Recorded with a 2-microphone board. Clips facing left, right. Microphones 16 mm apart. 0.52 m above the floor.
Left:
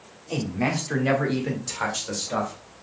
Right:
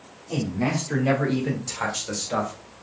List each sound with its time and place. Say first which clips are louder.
0.3 s a man speaking: even; 25° left (ahead or behind), 1.1 m; by 2.8 s centre (ahead or behind), 1.9 m